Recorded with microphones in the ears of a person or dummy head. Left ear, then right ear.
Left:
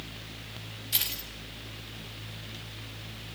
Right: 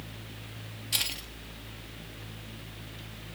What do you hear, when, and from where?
0.9 s keys jangling: 25° right (ahead or behind), 1.9 m